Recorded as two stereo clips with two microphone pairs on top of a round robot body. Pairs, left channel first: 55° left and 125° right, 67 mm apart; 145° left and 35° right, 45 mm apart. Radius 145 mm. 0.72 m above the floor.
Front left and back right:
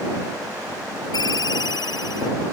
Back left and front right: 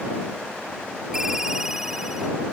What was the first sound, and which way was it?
A ringtone, 45° left.